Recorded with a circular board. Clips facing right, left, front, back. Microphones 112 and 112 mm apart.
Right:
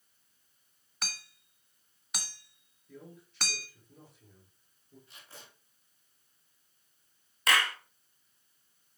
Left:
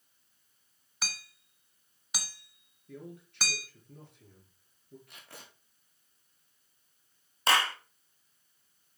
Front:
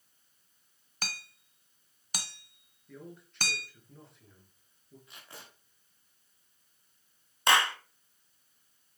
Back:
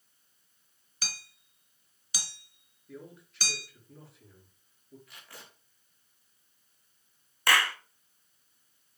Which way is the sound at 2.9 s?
90° left.